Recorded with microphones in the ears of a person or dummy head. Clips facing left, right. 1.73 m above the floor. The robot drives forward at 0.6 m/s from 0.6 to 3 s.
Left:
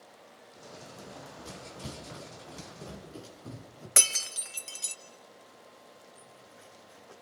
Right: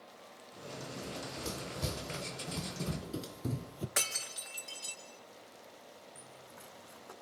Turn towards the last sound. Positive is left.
turn(degrees=-60)  # may be behind; listen again after turning